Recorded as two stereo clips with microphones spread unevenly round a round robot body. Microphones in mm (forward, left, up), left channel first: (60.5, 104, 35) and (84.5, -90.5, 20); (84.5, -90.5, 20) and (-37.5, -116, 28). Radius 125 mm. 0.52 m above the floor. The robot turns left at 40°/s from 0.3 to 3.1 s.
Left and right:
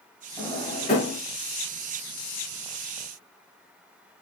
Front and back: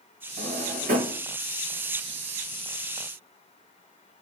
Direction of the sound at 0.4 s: 175° right.